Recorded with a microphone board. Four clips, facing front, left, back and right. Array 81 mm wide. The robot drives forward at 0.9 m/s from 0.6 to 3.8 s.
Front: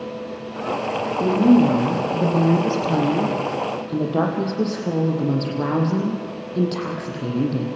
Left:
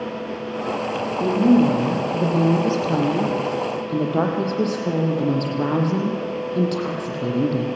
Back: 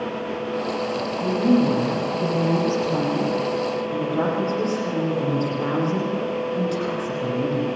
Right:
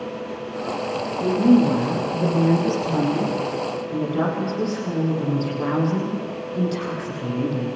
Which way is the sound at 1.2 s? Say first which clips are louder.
Even, front 4 dB; 35° left.